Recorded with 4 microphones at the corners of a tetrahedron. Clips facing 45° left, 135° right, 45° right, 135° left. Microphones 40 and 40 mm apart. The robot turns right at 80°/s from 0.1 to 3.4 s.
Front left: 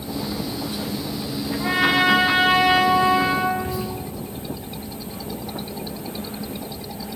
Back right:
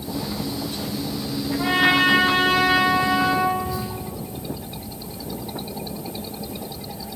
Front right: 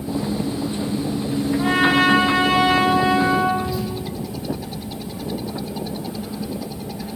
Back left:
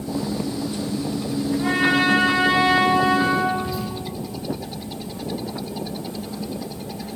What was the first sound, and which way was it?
A trumpet, 95° right.